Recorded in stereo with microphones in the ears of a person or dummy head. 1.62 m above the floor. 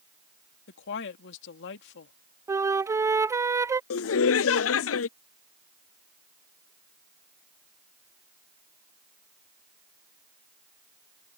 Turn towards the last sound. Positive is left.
turn(degrees=70)  # may be behind; listen again after turning